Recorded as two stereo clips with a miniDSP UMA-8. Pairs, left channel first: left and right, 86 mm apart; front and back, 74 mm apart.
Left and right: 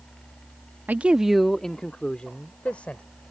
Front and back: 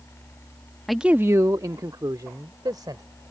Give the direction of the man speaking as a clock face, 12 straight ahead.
3 o'clock.